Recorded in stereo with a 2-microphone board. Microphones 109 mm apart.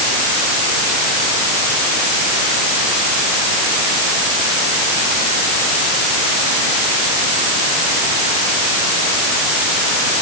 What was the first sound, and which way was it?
Only background noise.